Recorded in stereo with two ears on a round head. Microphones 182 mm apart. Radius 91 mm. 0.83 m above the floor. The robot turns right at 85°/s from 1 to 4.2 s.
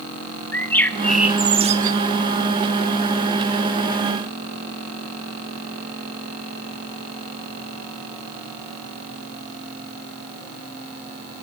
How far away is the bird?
About 1.2 m.